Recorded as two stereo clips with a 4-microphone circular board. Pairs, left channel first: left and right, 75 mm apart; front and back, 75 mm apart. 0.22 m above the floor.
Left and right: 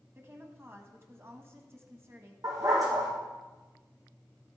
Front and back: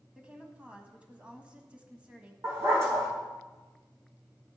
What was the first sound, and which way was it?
A woman speaking, 115° right.